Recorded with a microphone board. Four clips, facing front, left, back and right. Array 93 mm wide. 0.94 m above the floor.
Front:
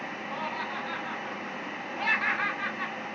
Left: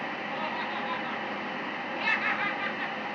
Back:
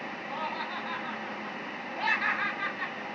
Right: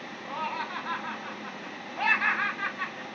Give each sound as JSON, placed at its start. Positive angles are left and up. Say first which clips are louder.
{"t": 0.3, "sound": "laughter", "louder": "right 3 dB, even", "azimuth_deg": -110, "distance_m": 4.0}